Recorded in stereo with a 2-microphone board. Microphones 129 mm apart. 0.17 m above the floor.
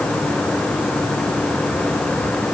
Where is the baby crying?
No baby crying in this recording.